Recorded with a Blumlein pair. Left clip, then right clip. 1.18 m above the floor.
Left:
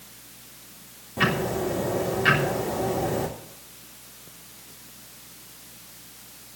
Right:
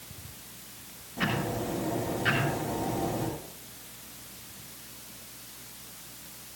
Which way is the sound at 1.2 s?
25° left.